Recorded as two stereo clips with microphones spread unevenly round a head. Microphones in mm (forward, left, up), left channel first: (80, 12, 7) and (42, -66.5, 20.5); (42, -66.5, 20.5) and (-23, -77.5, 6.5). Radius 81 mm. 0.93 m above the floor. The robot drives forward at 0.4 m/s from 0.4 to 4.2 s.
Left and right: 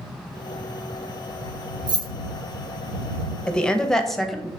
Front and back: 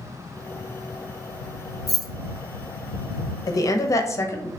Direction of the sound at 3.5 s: Straight ahead.